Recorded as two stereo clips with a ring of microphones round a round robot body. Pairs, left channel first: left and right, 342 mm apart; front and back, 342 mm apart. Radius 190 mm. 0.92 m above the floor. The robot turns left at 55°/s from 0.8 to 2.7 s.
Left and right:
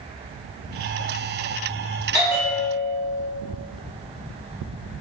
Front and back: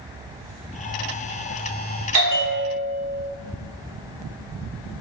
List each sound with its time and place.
2.1 s a bell: 165° right, 0.6 m; by 3.3 s 165° left, 0.6 m